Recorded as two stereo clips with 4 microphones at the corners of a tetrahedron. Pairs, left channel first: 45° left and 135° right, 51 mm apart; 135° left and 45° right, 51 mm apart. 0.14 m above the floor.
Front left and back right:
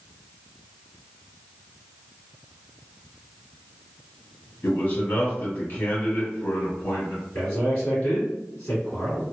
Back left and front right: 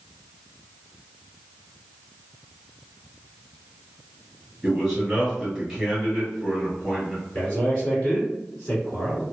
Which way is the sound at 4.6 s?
45° left.